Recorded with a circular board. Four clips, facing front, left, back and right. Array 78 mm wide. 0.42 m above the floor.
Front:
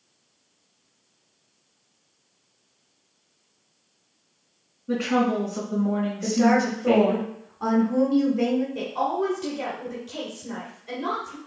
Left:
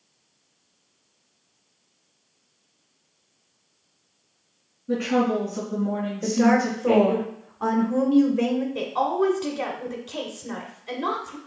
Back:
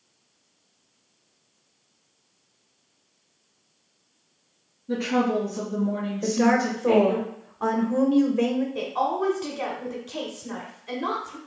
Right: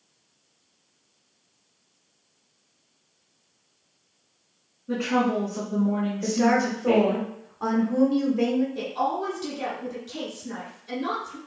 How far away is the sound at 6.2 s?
About 0.8 m.